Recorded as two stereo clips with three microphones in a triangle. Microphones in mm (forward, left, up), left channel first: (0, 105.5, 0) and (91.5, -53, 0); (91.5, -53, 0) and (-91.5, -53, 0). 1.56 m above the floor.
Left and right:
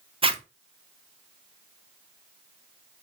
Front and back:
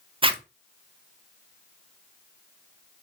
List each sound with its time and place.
0.2 s a zipper: 115° right, 0.5 m